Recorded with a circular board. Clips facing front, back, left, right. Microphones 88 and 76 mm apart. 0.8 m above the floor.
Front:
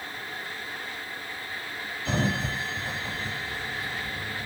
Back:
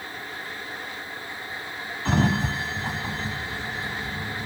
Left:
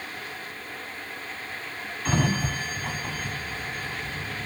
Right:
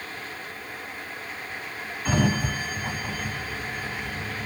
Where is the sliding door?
170° right, 1.1 m.